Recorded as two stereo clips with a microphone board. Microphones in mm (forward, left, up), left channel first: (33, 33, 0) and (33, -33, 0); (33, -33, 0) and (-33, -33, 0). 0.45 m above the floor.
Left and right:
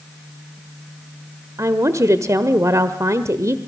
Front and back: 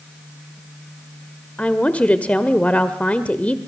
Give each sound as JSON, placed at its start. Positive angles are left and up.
{"t": 1.6, "sound": "a woman speaking", "azimuth_deg": -65, "distance_m": 1.3}